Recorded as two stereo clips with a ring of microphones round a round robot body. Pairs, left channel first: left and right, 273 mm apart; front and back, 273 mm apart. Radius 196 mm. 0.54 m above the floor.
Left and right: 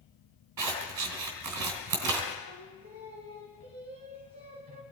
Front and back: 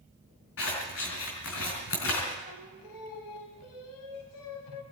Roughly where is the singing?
Ahead.